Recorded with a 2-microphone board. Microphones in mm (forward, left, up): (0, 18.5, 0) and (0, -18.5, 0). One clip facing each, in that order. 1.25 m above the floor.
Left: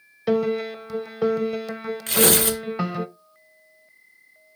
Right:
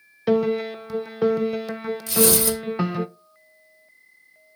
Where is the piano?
5° right (ahead or behind), 0.7 m.